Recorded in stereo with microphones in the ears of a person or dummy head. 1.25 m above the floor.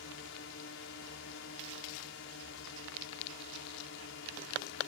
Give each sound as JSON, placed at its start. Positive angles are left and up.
{"t": 0.0, "sound": "a drone", "side_deg": 60}